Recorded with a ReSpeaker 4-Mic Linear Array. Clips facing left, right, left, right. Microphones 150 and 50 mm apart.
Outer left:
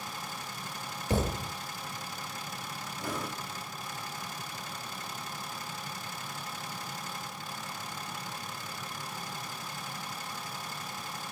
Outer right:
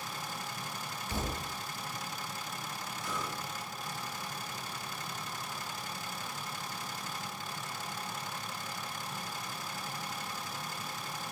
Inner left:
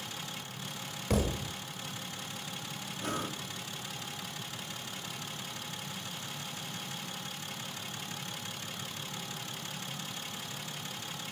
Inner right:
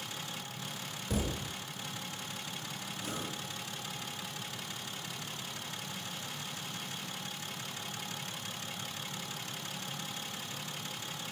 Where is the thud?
80° left, 2 m.